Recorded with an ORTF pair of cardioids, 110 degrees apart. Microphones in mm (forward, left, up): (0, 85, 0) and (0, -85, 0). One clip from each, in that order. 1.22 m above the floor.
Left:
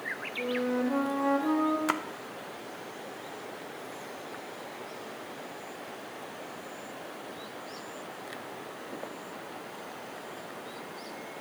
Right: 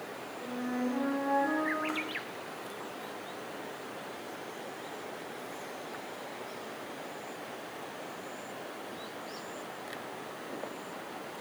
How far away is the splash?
About 0.5 m.